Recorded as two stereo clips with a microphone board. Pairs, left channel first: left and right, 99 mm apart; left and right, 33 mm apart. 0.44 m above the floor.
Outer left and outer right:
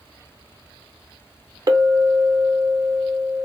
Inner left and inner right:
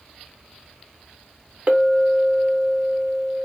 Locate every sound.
1.7 s a clink: 40° right (ahead or behind), 0.8 m